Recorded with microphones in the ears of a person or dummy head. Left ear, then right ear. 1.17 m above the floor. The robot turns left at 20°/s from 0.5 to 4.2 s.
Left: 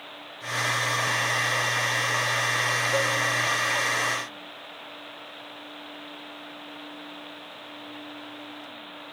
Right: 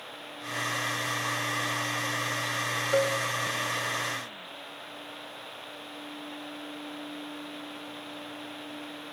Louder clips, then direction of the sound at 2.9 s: Right 4 dB; 35° right (ahead or behind).